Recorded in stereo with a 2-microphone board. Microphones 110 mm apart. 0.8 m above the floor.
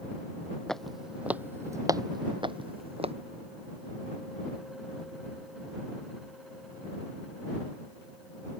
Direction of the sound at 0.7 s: 5° left (ahead or behind).